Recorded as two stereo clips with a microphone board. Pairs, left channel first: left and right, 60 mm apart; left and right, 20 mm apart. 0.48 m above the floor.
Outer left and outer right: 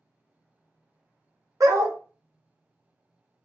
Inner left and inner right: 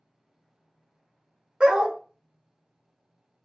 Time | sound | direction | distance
1.6 | a dog barking | 65° right (ahead or behind) | 0.6 m